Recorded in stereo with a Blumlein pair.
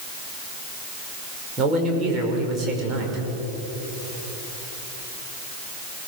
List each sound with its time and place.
1.6 s a man speaking: 25° right, 5.5 m